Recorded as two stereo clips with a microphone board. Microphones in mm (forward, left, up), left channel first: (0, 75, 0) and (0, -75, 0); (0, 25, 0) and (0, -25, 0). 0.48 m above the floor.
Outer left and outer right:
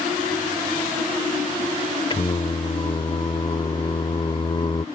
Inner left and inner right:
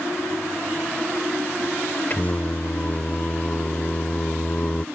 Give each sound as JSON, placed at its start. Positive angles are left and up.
{"t": 2.1, "sound": "singing", "side_deg": 35}